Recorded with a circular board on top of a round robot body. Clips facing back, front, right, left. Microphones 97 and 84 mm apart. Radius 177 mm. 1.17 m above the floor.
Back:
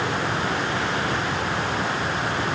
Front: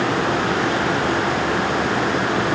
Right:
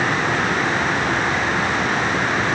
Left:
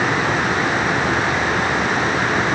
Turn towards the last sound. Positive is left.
No sound to turn to.